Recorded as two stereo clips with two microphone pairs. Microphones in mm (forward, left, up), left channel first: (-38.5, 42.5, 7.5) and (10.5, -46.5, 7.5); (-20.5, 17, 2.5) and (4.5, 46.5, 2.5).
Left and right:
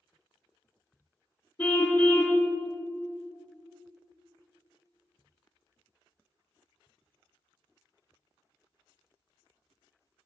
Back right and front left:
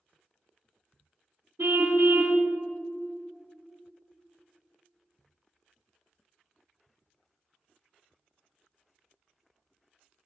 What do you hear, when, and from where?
1.6 s a car horn: 55° left, 2.5 m